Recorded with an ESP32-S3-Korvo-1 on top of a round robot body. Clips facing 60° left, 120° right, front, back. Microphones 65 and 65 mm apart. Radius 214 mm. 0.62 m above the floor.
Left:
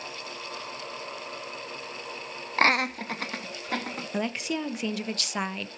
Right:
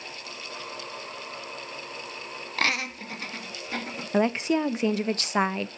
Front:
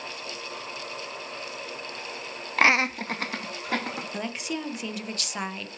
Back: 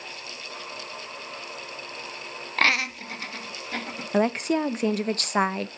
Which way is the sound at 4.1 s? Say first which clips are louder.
Right 7 dB, back 14 dB; 165° right.